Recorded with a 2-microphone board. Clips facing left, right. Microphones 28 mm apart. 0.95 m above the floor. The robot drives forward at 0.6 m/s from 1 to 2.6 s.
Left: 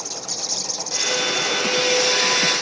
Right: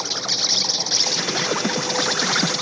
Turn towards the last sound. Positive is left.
turn(degrees=-45)  # may be behind; listen again after turning